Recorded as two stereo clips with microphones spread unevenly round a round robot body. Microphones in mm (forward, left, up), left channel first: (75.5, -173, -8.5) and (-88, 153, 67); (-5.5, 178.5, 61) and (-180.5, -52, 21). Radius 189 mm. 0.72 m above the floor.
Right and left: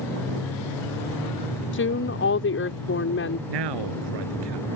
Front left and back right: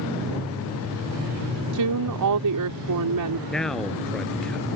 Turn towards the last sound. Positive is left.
turn(degrees=140)